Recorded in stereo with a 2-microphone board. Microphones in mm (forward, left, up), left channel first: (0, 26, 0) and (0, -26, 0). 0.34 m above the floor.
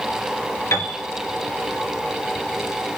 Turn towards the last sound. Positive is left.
turn(degrees=70)  # may be behind; listen again after turning